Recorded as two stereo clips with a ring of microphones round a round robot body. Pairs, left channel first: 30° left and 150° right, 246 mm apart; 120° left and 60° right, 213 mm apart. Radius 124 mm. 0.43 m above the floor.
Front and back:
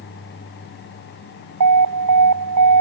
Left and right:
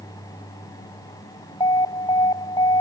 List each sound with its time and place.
1.6 s an alarm: 165° right